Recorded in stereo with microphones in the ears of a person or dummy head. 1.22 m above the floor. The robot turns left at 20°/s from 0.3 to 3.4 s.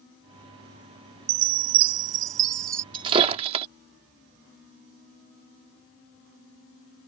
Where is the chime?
120° right; by 2.8 s 150° right.